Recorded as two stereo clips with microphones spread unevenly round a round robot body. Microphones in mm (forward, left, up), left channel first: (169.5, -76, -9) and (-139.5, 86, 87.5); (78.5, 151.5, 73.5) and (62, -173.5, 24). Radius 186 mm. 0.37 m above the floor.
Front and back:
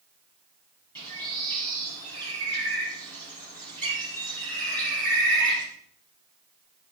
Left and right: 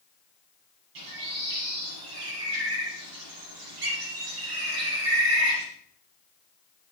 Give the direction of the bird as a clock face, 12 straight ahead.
4 o'clock.